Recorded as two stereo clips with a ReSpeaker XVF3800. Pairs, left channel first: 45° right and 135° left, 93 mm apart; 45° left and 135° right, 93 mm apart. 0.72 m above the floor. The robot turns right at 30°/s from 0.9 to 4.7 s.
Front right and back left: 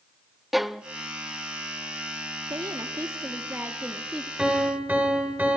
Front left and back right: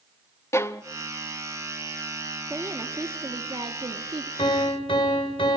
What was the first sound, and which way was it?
A violin, 45° left.